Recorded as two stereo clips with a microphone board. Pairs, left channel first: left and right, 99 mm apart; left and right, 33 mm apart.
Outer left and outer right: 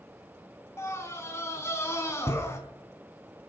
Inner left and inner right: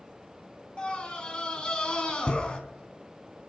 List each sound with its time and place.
0.8 s a scream: 30° left (ahead or behind), 3 m